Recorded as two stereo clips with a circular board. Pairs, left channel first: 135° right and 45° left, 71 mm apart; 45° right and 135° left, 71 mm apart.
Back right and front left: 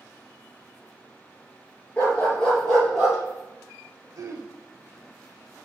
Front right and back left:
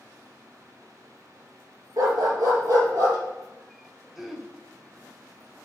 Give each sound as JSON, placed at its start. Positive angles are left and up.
{"t": 2.0, "sound": "a dog barking", "azimuth_deg": 155, "distance_m": 2.5}
{"t": 4.2, "sound": "throat clearing", "azimuth_deg": 45, "distance_m": 1.1}